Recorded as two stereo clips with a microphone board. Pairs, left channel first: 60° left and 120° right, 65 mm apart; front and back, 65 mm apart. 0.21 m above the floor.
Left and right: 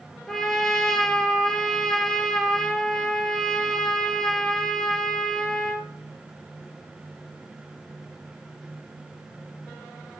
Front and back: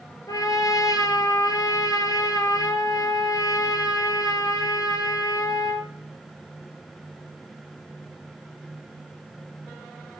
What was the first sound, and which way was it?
A trumpet, 25° right.